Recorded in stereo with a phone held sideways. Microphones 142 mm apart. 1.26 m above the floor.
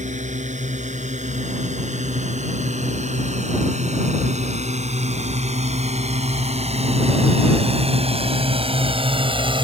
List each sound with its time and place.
0.0 s a drone: 55° right (ahead or behind); by 9.6 s 35° right (ahead or behind)